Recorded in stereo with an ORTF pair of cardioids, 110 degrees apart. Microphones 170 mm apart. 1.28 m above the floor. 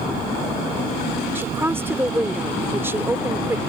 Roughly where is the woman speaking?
Ahead.